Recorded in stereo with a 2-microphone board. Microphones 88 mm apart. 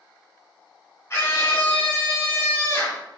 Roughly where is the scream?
Left.